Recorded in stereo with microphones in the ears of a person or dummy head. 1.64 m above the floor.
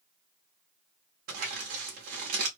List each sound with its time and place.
1.3 s crumpling: 50° right (ahead or behind), 1.0 m